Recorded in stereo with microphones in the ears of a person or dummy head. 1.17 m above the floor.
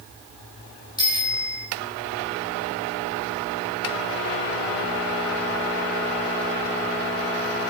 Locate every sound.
1.0 s a bicycle bell: 25° left (ahead or behind), 4 m